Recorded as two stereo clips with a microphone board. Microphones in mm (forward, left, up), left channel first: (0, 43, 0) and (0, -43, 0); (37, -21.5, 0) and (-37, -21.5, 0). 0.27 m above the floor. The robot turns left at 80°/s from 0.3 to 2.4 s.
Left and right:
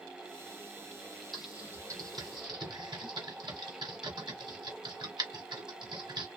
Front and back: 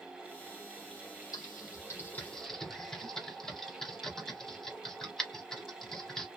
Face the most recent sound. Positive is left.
turn(degrees=-80)